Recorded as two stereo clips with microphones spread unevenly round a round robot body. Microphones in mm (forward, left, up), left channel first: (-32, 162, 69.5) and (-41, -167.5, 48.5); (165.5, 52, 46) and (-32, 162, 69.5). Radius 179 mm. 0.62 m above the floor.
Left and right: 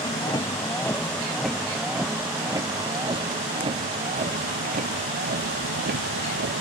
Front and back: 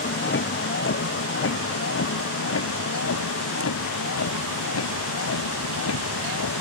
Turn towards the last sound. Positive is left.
turn(degrees=-30)